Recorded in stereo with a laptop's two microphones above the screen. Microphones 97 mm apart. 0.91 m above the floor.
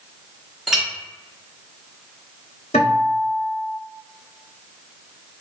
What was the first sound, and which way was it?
A clink, 5° right (ahead or behind).